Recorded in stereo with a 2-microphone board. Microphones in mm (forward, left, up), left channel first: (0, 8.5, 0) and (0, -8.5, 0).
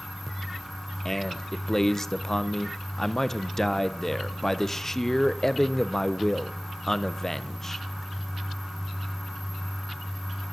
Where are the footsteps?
No footsteps in this recording.